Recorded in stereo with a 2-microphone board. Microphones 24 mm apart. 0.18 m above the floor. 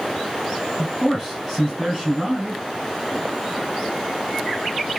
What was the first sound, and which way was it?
A man speaking, 5° right (ahead or behind).